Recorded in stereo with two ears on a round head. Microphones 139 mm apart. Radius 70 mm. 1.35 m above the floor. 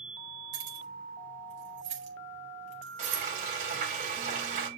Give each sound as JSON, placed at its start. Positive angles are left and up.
{"t": 0.5, "sound": "keys jangling", "side_deg": -50, "distance_m": 4.5}
{"t": 3.0, "sound": "frying", "side_deg": -50, "distance_m": 5.5}